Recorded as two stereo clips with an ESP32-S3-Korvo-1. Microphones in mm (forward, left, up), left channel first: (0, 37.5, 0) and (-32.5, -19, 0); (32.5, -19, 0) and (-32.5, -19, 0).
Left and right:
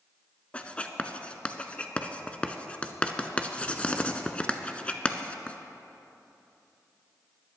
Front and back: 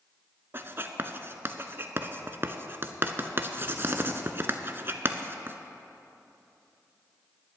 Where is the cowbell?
No cowbell in this recording.